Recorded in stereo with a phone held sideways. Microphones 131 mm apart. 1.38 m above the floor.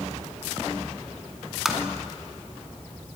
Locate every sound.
1.6 s tapping: 5° right (ahead or behind), 2.5 m